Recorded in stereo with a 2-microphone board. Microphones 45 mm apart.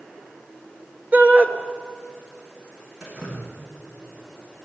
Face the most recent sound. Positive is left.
turn(degrees=-15)  # may be behind; listen again after turning